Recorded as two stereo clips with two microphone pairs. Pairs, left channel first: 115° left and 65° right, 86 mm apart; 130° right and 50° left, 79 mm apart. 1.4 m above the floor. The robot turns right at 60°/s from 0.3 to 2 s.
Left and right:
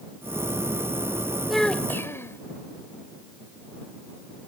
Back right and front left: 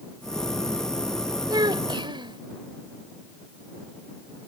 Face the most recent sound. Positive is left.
turn(degrees=55)